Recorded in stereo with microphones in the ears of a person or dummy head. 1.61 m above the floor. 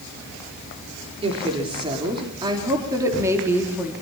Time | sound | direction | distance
1.2 | a woman speaking | 30° right (ahead or behind) | 5 m